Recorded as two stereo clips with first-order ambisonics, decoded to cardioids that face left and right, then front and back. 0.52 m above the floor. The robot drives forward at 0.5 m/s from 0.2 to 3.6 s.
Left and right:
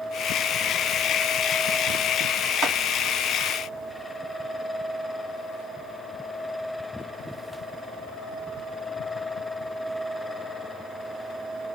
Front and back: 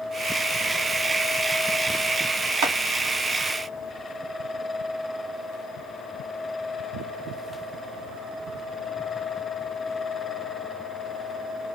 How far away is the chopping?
About 3.5 m.